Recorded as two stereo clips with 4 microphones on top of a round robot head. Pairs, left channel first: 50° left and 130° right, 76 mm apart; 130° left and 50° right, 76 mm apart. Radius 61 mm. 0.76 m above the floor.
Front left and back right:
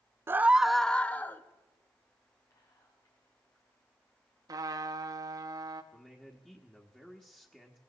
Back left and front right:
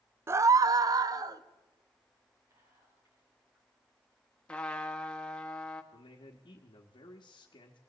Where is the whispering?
5° left, 6 m.